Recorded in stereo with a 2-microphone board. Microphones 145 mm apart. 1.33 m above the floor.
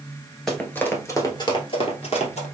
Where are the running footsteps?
5° left (ahead or behind), 1.3 m; by 2.5 s 50° left (ahead or behind), 1.9 m.